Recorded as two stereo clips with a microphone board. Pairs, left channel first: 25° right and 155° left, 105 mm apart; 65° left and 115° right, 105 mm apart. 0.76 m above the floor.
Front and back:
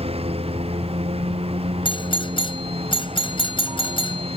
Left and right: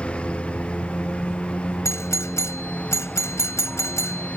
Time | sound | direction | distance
0.0 | a lawn mower | 145° left | ?
1.9 | a doorbell | 5° left | ?